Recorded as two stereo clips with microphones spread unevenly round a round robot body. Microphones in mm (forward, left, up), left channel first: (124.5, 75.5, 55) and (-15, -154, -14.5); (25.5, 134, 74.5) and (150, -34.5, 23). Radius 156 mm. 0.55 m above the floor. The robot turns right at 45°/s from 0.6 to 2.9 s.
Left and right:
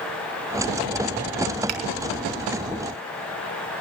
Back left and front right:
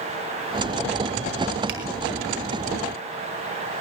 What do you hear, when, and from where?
1.7 s a finger snap: 100° right, 4 m; by 1.8 s 95° right, 4 m